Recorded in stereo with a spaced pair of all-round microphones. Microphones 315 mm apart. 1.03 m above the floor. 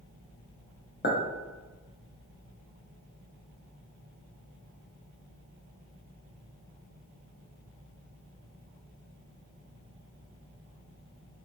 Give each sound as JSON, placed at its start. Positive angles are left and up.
{"t": 1.0, "sound": "a clink", "side_deg": 35, "distance_m": 0.6}